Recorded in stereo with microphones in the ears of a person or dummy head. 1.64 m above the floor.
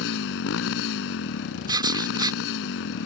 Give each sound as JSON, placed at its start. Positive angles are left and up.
{"t": 0.0, "sound": "a motorcycle", "side_deg": 75}
{"t": 1.7, "sound": "writing", "side_deg": -25}